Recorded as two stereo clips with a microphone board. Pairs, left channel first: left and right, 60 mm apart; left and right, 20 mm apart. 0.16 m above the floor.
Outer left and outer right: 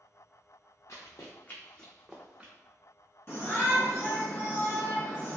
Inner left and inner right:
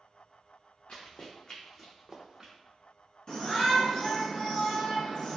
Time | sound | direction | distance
0.9 | running footsteps | 65° left (ahead or behind) | 1.0 m
3.3 | a shout | 40° left (ahead or behind) | 1.5 m